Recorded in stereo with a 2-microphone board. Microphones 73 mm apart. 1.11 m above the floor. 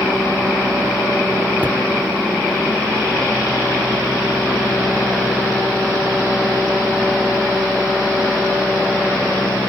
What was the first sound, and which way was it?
A cupboard door, 25° right (ahead or behind).